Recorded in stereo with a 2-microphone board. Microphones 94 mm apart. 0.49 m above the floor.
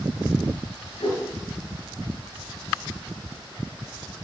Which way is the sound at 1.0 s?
80° left.